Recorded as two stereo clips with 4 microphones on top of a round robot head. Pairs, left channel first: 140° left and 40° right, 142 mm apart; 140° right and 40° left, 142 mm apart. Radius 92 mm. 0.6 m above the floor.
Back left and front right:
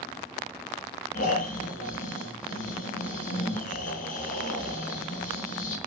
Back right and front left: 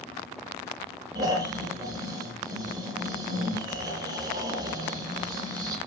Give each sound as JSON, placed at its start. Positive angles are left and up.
{"t": 1.1, "sound": "snoring", "azimuth_deg": 105, "distance_m": 7.0}